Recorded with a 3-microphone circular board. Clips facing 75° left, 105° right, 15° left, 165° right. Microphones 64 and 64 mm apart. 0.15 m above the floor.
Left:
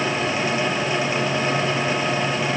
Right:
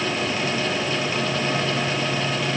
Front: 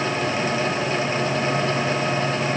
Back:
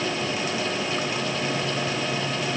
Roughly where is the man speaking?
I don't hear a man speaking.